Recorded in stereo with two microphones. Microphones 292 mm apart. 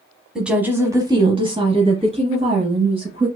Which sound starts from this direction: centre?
A woman speaking, at 0.3 s.